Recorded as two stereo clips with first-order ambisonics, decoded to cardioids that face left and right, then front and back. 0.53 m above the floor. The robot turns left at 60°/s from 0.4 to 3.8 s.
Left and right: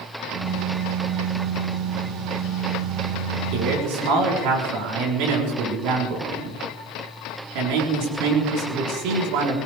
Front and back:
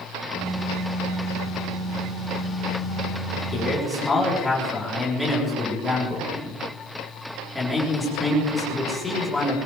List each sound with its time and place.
3.5 s a man speaking: 70° right, 6 m; by 9.6 s 85° right, 6 m